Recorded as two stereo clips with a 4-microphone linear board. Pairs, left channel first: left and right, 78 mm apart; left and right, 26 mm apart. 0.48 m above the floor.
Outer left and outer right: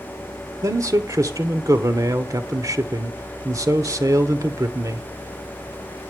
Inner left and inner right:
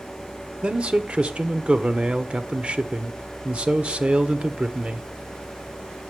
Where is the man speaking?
45° right (ahead or behind), 1.0 m.